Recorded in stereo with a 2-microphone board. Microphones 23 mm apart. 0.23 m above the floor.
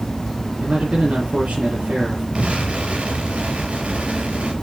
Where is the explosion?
70° right (ahead or behind), 3.5 m.